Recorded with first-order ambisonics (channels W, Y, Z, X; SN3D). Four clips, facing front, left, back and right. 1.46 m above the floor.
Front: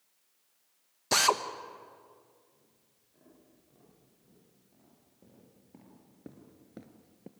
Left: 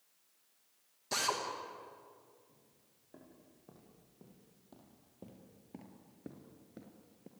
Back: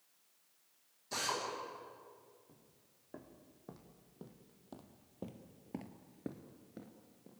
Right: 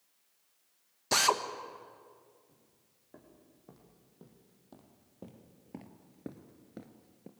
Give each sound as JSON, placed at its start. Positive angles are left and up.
{"t": 1.1, "sound": "a drill", "azimuth_deg": -30, "distance_m": 1.5}
{"t": 2.5, "sound": "footsteps", "azimuth_deg": -170, "distance_m": 6.5}